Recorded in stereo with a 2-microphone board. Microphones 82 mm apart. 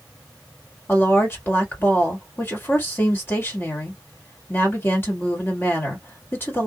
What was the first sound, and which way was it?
A woman speaking, 25° left (ahead or behind).